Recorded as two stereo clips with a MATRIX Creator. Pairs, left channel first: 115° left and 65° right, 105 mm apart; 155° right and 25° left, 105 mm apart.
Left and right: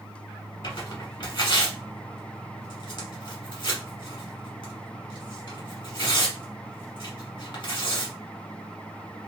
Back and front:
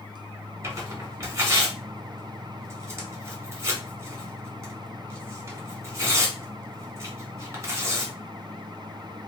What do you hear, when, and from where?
0.6 s tearing paper: 80° left, 1.4 m